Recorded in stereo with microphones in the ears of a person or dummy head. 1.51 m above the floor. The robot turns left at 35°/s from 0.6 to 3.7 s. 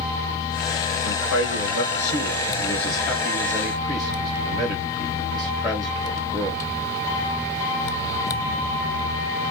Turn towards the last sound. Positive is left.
turn(degrees=-5)